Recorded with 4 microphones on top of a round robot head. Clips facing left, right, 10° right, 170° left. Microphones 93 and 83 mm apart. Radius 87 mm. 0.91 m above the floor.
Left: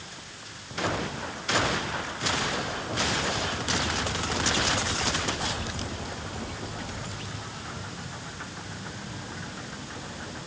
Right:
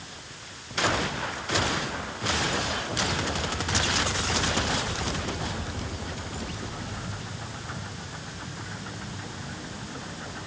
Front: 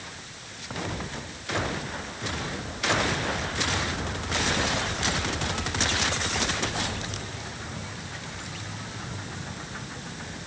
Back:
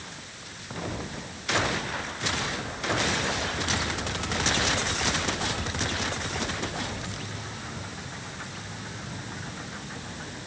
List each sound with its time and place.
Only background noise.